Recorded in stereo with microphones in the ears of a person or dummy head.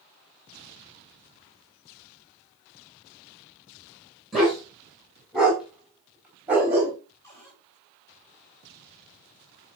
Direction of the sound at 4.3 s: 5° left (ahead or behind).